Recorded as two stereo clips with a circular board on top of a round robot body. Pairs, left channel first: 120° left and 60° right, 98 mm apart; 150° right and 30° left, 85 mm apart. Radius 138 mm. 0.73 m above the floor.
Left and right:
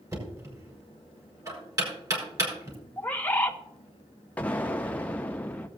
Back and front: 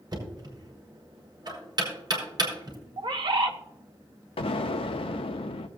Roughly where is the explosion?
Behind.